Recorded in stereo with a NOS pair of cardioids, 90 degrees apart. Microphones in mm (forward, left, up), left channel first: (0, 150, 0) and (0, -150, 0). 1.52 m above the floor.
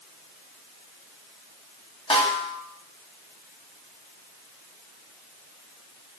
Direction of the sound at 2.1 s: 20° left.